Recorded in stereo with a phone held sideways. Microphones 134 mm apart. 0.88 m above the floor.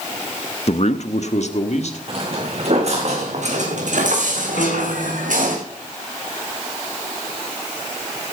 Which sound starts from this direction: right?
Footsteps, at 2.1 s.